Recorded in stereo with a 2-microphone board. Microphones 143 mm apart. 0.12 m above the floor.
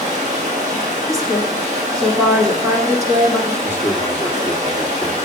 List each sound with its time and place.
0.0 s running water: 55° right (ahead or behind), 3.5 m
1.1 s a woman speaking: 20° right (ahead or behind), 1.7 m
3.6 s a man speaking: 15° right (ahead or behind), 2.5 m